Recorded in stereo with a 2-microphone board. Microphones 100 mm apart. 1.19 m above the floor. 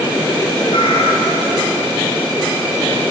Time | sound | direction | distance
0.7 | a cat meowing | 75° left (ahead or behind) | 6.5 m